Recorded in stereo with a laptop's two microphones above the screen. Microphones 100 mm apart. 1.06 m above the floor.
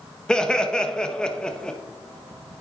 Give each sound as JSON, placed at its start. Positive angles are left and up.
{"t": 0.3, "sound": "laughter", "side_deg": 5, "distance_m": 1.3}